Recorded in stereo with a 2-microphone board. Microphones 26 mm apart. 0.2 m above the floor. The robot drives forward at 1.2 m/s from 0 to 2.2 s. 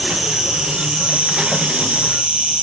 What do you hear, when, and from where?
0.0 s an insect: 25° right (ahead or behind), 2 m; by 2.6 s 50° right (ahead or behind), 1.2 m